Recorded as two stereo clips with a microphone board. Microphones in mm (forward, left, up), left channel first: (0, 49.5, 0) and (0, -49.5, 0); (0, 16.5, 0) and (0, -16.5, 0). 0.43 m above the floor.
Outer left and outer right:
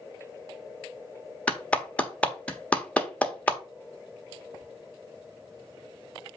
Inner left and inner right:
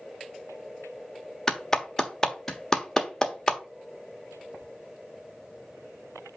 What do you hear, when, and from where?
1.5 s a clap: 15° left (ahead or behind), 1.1 m